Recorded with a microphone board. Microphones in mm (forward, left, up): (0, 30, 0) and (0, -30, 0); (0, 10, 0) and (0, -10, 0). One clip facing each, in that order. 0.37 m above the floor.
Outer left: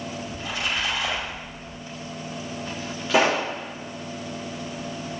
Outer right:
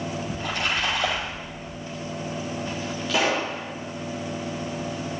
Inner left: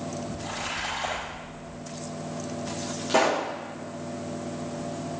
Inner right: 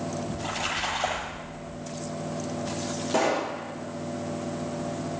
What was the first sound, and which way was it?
A splash, 60° right (ahead or behind).